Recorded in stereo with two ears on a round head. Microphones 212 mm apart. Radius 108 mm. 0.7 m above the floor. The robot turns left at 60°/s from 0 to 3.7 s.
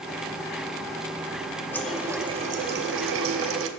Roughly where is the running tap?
Ahead.